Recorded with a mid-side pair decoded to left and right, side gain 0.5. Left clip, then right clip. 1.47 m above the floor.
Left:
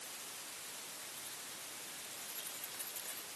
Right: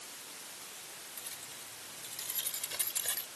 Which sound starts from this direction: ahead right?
Keys jangling, at 1.2 s.